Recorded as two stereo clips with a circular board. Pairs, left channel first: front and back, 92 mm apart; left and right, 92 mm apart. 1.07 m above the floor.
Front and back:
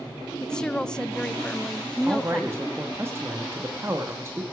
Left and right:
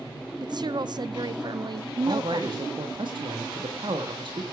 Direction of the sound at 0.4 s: 80° right.